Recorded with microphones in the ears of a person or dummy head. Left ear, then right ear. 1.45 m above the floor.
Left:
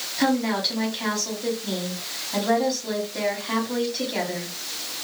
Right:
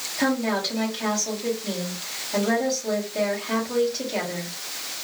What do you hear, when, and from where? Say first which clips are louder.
0.2 s a woman speaking: left 1 dB; 5° left (ahead or behind), 2.5 m